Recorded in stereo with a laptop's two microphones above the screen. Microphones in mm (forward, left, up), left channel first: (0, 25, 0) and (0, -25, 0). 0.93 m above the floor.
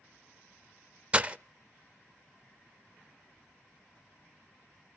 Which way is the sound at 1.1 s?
25° right (ahead or behind).